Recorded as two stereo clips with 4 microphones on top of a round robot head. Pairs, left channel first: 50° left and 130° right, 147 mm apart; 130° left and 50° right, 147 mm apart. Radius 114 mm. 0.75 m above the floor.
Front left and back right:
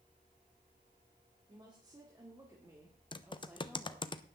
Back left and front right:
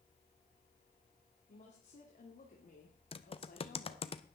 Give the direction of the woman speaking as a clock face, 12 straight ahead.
6 o'clock.